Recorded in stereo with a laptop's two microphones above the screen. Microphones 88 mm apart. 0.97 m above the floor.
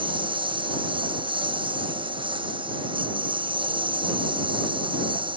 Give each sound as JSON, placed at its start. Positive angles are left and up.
{"t": 0.0, "sound": "a lawn mower", "side_deg": -70}